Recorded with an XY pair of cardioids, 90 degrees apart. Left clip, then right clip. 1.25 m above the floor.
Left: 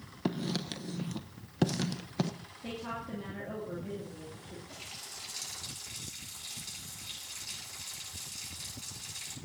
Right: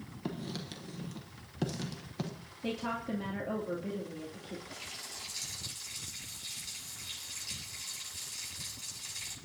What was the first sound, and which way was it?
Writing, 50° left.